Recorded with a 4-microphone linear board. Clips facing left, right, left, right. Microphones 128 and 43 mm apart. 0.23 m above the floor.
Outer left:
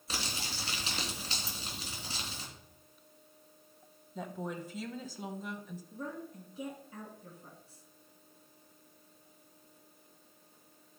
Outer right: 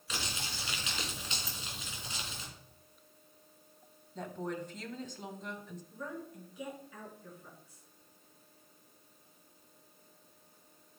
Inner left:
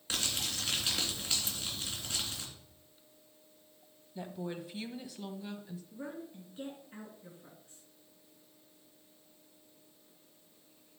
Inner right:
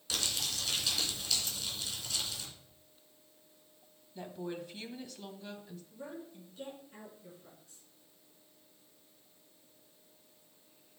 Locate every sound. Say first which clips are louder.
0.1 s crumpling: outer left 1 dB, even; 35° left (ahead or behind), 3 m
1.5 s a dropped coin: outer left 1 dB, inner left 1 dB; 15° left (ahead or behind), 0.6 m
4.2 s a woman speaking: outer right 1 dB, even; 5° left (ahead or behind), 1.3 m
5.9 s a woman speaking: outer left 1 dB, inner left 1 dB; 30° left (ahead or behind), 3.5 m